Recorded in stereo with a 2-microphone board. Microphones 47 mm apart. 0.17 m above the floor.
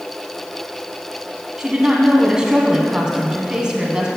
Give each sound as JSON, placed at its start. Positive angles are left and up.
{"t": 1.6, "sound": "a woman speaking", "side_deg": -15, "distance_m": 1.2}